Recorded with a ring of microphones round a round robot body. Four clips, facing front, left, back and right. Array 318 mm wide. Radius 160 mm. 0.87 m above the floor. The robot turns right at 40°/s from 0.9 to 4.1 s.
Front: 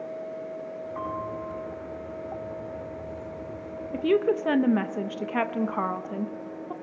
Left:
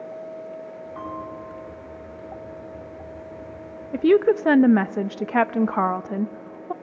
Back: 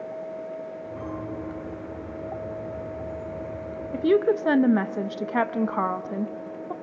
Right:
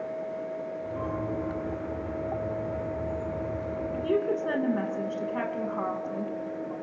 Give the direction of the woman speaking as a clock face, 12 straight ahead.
9 o'clock.